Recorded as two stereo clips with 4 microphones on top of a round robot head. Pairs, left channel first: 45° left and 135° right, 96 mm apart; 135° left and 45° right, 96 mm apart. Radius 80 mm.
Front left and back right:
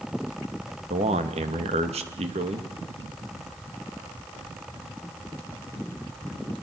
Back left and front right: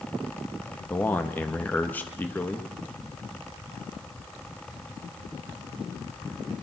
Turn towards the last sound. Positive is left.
turn(degrees=-150)